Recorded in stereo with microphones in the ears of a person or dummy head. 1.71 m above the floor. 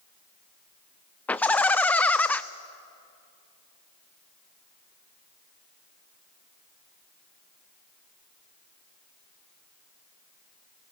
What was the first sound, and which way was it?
Laughter, 5° left (ahead or behind).